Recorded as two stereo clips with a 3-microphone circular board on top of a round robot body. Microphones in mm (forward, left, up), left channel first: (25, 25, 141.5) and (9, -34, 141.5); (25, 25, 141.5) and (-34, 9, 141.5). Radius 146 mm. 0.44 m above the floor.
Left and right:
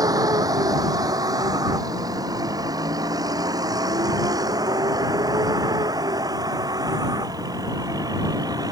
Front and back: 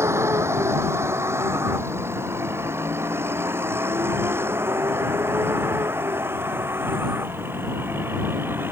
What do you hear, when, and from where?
0.0 s a vehicle: 120° right; by 8.7 s 110° right